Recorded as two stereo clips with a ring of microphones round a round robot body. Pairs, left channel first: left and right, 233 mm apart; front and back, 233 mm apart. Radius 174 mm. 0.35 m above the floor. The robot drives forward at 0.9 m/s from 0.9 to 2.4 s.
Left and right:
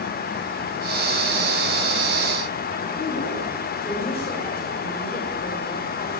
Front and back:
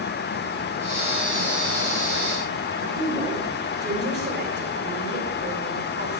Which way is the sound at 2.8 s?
140° left.